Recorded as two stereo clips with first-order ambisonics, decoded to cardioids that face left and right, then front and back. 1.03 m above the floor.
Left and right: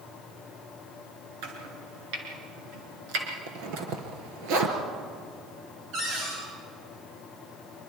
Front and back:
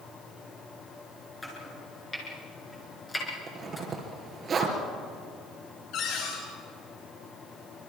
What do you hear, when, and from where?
1.4 s chopping: 80° right, 5.5 m
3.5 s a zipper: 110° right, 3 m
5.9 s a cupboard door: 40° right, 9.5 m